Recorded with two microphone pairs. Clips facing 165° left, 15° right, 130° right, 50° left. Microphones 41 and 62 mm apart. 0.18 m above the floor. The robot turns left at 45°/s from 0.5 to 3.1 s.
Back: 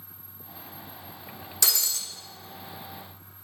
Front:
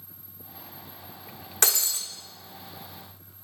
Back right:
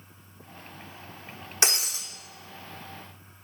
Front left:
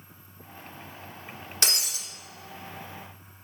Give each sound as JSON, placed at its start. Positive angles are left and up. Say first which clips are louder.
{"t": 1.6, "sound": "breaking glass", "louder": "front 2 dB, back right 3 dB", "azimuth_deg": -55, "distance_m": 1.3}